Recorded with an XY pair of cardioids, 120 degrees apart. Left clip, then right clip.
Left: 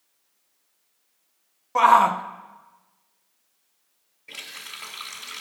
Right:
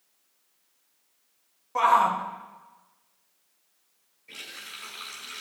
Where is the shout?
35° left, 0.6 m.